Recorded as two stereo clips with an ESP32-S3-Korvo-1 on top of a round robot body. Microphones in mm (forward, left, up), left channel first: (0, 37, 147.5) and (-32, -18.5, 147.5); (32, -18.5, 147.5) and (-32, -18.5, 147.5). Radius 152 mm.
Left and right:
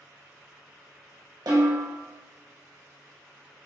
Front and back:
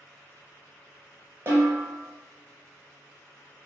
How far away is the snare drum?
About 1.1 m.